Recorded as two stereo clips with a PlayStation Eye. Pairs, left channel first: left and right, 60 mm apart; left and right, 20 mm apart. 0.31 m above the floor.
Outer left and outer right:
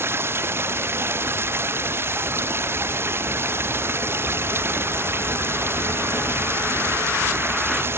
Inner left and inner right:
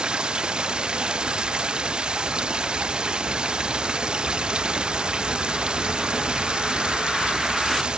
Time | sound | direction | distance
0.0 | running water | 40° right (ahead or behind) | ?